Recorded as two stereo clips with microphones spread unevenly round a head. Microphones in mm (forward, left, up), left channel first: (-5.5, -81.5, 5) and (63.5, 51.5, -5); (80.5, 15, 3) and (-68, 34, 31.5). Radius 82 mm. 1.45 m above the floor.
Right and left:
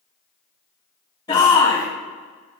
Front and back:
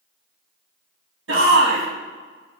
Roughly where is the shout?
Behind.